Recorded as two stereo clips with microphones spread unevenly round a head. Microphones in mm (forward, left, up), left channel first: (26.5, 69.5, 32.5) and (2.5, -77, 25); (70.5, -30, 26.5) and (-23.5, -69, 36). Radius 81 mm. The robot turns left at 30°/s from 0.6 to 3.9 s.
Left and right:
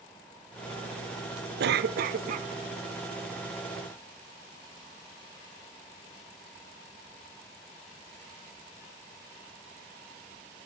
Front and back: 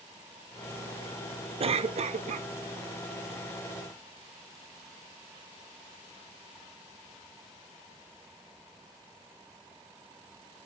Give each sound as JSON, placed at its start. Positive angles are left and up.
{"t": 1.6, "sound": "a cough", "azimuth_deg": -125, "distance_m": 0.9}